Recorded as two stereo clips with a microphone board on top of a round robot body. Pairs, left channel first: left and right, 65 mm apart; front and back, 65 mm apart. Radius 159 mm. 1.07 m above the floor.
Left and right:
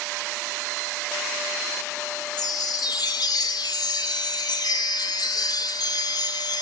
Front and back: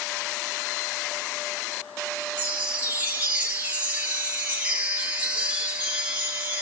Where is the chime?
110° left, 1.0 m.